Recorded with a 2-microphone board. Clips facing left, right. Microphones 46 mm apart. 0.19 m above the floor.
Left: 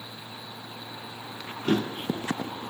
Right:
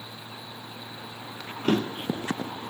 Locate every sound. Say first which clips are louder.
1.6 s a drawer: right 1 dB; 65° right (ahead or behind), 3 m